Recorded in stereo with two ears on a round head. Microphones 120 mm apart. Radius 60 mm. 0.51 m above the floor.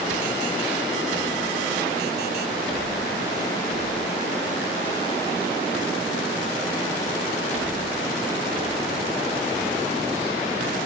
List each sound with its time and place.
Only background noise.